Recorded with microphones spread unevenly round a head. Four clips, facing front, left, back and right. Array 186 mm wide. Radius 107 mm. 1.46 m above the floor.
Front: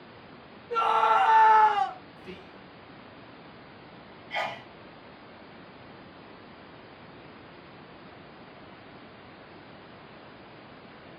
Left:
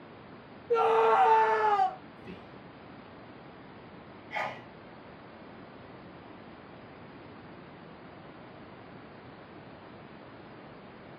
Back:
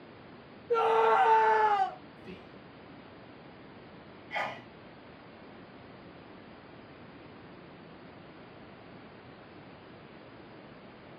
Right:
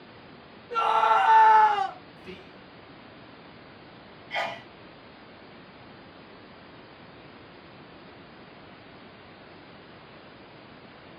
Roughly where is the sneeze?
Behind right.